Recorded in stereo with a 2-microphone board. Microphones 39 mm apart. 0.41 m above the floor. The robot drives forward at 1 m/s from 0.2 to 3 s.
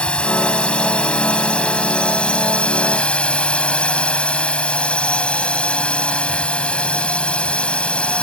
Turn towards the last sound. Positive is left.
turn(degrees=30)  # may be behind; listen again after turning